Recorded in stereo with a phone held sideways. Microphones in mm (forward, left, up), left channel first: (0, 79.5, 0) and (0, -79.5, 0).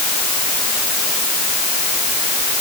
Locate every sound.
Only background noise.